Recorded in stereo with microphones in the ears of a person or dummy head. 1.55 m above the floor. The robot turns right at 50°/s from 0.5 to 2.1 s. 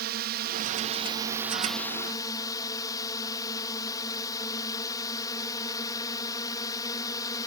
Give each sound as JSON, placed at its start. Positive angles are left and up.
{"t": 0.0, "sound": "a drone", "azimuth_deg": -60}